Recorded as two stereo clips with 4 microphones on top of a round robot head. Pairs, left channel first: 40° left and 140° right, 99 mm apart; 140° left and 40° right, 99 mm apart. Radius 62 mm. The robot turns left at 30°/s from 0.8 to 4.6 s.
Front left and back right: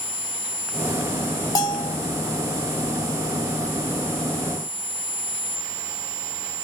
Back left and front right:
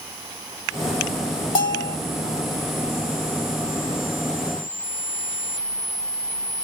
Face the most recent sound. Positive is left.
turn(degrees=0)